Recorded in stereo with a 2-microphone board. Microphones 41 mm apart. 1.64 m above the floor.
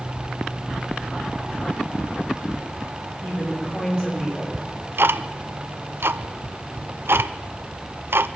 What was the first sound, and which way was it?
A woman speaking, 40° left (ahead or behind).